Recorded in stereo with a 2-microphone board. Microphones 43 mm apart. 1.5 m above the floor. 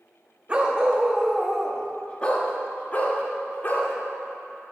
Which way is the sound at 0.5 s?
30° right (ahead or behind).